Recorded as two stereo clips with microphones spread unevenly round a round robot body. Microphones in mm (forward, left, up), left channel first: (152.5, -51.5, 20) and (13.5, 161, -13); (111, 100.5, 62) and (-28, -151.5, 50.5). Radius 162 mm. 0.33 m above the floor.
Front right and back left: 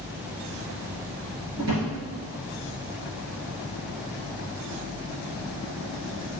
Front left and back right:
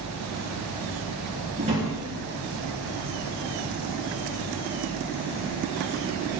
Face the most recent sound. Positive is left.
turn(degrees=175)